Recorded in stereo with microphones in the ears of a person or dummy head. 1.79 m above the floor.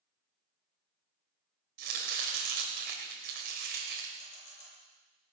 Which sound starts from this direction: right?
Chopping, at 1.8 s.